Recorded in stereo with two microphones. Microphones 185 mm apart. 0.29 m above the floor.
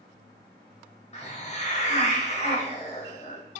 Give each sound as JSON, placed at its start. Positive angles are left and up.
{"t": 1.1, "sound": "a hiss", "side_deg": 35, "distance_m": 0.8}